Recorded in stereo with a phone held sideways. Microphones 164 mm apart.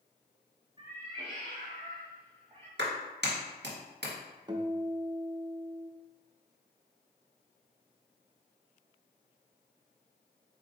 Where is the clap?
85° right, 1.7 m.